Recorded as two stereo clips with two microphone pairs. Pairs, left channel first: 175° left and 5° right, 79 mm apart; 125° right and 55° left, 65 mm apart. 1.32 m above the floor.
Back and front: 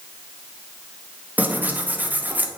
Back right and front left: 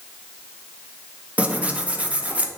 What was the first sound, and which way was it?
Tearing paper, 20° left.